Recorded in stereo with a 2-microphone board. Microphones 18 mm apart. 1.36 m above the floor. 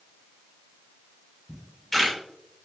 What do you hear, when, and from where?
1.5 s a camera shutter: 10° left (ahead or behind), 5.5 m